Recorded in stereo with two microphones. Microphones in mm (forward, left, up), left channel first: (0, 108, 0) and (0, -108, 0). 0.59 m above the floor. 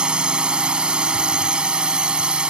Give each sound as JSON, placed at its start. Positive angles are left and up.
{"t": 0.0, "sound": "a drone", "side_deg": -5}